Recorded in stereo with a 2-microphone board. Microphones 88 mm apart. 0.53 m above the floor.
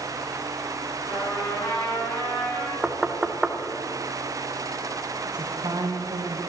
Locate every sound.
1.1 s a trumpet: 45° left (ahead or behind), 6 m
2.8 s knocking: 10° right (ahead or behind), 0.9 m
5.3 s a woman speaking: 50° right (ahead or behind), 2.5 m